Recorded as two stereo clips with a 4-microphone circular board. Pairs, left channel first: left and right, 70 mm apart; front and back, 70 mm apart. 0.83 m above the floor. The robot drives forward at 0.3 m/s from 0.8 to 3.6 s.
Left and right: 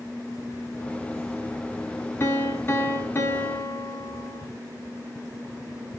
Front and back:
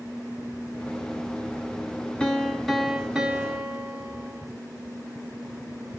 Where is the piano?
65° left, 0.7 m; by 4.5 s 125° left, 0.7 m.